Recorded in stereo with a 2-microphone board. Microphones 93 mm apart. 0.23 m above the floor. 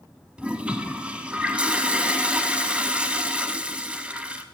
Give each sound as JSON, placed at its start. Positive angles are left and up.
{"t": 0.4, "sound": "a toilet flushing", "side_deg": -10, "distance_m": 0.6}